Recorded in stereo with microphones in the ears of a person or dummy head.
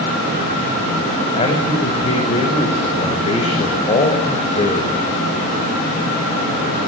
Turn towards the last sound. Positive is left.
turn(degrees=30)  # may be behind; listen again after turning